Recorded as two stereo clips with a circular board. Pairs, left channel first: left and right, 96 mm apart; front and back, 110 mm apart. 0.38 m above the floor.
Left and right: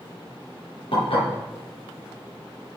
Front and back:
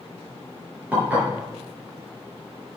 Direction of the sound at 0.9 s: 105° left.